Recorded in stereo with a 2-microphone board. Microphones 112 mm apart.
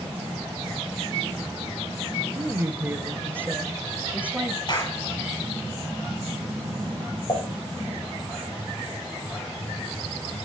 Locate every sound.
2.4 s a woman speaking: 20° right (ahead or behind), 1.3 m; by 4.6 s 15° right (ahead or behind), 2 m
4.7 s a clap: 40° left (ahead or behind), 7.5 m
7.3 s dishes clattering: 45° left (ahead or behind), 8 m